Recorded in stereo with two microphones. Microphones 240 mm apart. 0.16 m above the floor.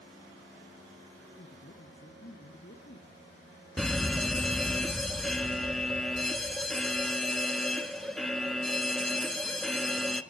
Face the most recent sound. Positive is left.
turn(degrees=0)  # may be behind; listen again after turning